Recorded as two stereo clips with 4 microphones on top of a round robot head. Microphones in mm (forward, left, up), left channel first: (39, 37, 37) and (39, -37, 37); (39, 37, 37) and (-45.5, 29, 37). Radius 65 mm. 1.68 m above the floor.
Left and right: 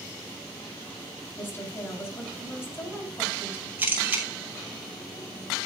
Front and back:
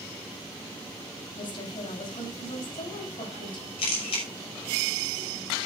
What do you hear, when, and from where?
1.4 s a woman speaking: 30° left, 8.5 m
3.8 s a camera shutter: 20° right, 6 m